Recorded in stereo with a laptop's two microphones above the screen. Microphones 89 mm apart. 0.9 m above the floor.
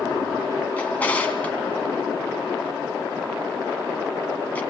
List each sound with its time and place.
0.8 s a drawer: 20° left (ahead or behind), 2.5 m